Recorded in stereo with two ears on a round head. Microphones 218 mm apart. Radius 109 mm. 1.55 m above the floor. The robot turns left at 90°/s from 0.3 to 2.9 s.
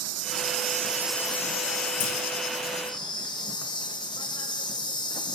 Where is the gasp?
No gasp in this recording.